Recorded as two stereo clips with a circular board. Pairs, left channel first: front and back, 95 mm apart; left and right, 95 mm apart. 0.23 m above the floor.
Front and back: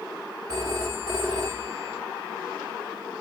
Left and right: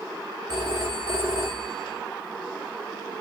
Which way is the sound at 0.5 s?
140° right.